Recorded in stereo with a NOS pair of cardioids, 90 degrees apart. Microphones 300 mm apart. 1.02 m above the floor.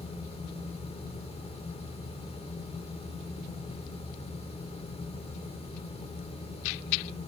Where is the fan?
20° left, 2 m.